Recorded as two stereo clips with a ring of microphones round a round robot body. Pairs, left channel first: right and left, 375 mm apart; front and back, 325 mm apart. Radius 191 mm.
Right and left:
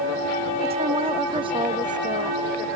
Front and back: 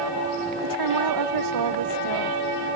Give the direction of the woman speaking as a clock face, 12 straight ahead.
7 o'clock.